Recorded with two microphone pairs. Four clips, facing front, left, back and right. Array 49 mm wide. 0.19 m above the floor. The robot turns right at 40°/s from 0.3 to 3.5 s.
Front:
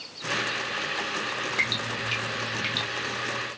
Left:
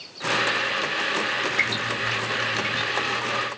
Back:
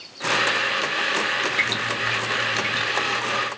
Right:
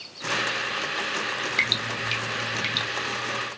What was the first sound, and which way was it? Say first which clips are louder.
Dripping: left 1 dB, back 5 dB; 115° right.